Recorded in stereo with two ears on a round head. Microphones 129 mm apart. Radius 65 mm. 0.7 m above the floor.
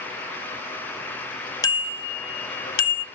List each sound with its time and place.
1.6 s a bicycle bell: 25° left (ahead or behind), 2 m; by 3.0 s 80° left, 1.7 m